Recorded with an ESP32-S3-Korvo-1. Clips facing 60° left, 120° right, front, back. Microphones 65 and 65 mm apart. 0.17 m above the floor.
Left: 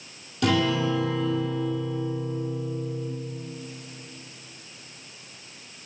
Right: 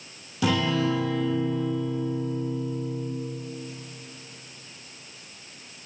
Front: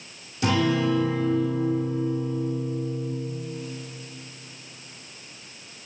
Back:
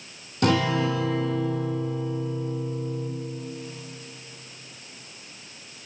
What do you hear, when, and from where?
0.4 s a guitar: 155° left, 1.6 m